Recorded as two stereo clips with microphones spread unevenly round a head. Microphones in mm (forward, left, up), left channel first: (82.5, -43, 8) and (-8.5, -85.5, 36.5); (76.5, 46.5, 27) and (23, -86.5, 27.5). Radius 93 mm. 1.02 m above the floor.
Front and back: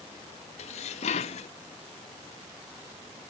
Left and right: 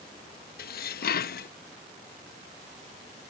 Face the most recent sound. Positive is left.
turn(degrees=55)